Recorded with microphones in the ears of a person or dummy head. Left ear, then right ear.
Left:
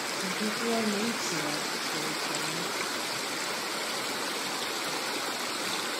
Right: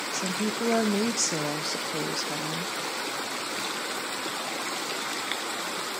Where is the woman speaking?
65° right (ahead or behind), 0.8 m.